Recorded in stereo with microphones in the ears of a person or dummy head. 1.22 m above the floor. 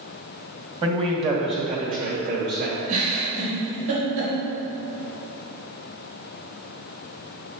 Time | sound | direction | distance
0.8 | a man speaking | 15° right (ahead or behind) | 1.3 m
2.9 | a giggle | 70° right (ahead or behind) | 2.5 m